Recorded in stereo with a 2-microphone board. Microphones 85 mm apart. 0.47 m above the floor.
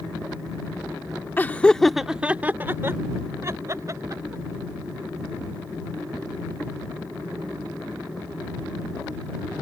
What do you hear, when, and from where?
1.4 s laughter: 25° left (ahead or behind); by 4.4 s 40° right (ahead or behind)